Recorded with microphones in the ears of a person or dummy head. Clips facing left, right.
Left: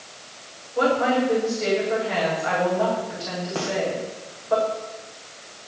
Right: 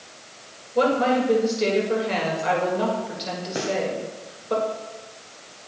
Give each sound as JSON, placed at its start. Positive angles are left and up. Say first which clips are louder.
{"t": 0.8, "sound": "a woman speaking", "louder": "right 1 dB", "side_deg": -45, "distance_m": 6.5}
{"t": 3.5, "sound": "a gunshot", "louder": "right 2 dB", "side_deg": -20, "distance_m": 2.0}